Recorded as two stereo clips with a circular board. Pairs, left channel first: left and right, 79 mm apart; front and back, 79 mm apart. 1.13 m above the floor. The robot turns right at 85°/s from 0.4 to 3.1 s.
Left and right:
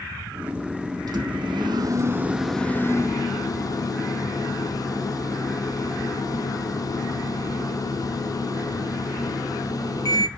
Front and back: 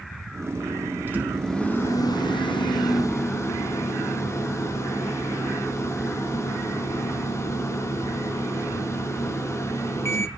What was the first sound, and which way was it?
A microwave, 120° right.